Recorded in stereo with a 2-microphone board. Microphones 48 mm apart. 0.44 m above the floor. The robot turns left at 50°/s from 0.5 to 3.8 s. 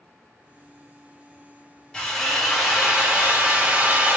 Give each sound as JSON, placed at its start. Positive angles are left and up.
{"t": 1.9, "sound": "a drill", "azimuth_deg": 30, "distance_m": 1.2}